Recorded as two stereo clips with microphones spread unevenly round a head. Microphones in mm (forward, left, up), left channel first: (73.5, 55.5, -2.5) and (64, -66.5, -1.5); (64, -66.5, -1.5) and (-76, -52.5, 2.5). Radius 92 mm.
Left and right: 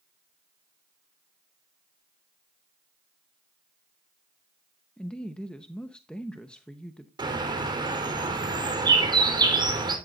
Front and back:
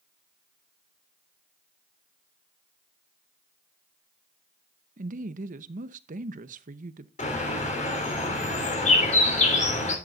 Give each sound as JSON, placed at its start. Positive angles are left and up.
{"t": 5.0, "sound": "a woman speaking", "azimuth_deg": 170, "distance_m": 0.8}
{"t": 7.2, "sound": "a bird", "azimuth_deg": -40, "distance_m": 4.0}